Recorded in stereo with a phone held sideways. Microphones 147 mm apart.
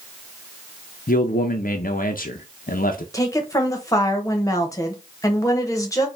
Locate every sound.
1.1 s a man speaking: 70° left (ahead or behind), 0.6 m
3.1 s a woman speaking: 20° left (ahead or behind), 1.1 m